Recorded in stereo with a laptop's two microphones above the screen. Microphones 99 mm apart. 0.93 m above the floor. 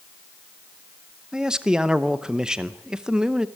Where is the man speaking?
5° right (ahead or behind), 0.7 m.